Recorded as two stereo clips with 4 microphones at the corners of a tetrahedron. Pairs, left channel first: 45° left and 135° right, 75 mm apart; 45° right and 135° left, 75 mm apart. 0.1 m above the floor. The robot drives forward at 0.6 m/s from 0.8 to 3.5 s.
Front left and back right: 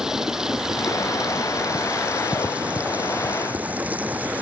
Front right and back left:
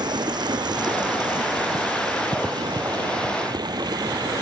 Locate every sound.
0.0 s running water: 145° left; by 4.4 s 155° left